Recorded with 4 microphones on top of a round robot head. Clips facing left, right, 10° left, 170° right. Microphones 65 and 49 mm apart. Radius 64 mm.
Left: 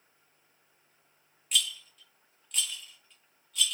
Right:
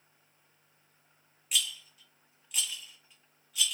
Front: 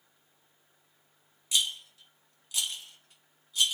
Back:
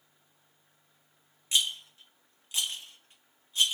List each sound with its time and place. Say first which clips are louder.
1.5 s a rattle: left 2 dB, back 1 dB; 170° right, 1.2 m